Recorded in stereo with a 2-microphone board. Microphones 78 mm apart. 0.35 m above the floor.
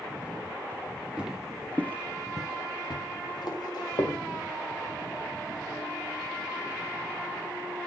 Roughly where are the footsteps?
Centre.